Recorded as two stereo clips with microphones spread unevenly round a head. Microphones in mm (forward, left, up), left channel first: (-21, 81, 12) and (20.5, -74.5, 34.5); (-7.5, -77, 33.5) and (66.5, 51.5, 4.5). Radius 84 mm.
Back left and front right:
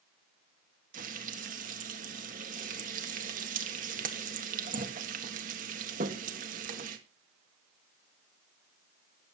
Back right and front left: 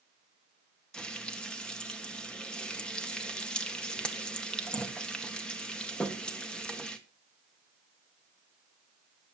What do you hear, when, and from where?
0.9 s frying: 40° right, 1.8 m